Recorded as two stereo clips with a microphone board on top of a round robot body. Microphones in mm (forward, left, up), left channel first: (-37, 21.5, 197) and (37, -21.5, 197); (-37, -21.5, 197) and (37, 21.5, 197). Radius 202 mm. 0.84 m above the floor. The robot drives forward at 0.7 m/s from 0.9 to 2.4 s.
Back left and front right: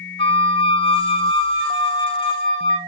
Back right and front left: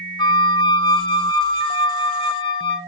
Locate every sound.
0.2 s a flute: 175° left, 0.8 m